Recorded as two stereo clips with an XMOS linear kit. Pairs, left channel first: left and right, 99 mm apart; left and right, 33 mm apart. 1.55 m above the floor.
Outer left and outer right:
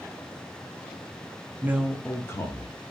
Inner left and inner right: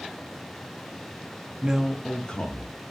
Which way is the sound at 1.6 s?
25° right (ahead or behind).